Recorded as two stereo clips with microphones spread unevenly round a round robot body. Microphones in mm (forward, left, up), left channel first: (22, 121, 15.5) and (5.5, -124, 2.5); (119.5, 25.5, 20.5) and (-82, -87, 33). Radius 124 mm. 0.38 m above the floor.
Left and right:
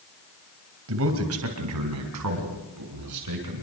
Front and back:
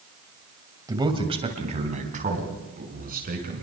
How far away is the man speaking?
About 2.5 m.